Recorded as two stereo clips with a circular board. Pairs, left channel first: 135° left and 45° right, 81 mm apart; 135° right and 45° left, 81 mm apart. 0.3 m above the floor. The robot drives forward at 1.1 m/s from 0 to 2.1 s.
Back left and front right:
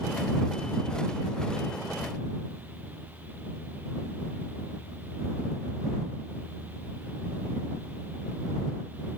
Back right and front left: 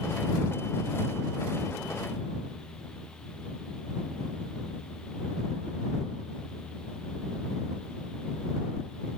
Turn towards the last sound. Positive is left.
No sound to turn to.